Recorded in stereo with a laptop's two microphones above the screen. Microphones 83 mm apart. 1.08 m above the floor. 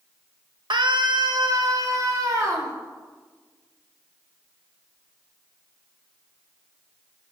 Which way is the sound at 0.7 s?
65° right (ahead or behind).